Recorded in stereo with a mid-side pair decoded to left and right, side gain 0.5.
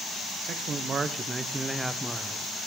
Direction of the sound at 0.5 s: 55° right.